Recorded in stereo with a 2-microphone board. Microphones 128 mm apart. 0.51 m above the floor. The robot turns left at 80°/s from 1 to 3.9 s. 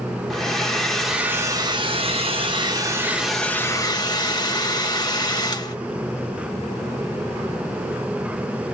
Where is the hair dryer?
5° left, 0.7 m; by 5.8 s 130° left, 0.7 m.